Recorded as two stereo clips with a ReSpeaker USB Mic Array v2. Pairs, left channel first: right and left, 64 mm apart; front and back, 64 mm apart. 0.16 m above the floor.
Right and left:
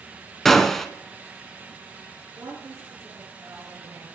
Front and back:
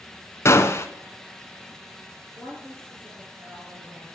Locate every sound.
0.5 s a gunshot: 10° right, 0.8 m
2.4 s a woman speaking: 125° left, 2.5 m